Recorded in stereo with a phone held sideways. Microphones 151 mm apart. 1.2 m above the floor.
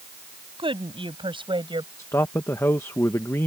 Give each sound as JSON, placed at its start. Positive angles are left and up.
{"t": 0.6, "sound": "a woman speaking", "side_deg": -35}
{"t": 2.0, "sound": "a man speaking", "side_deg": 20}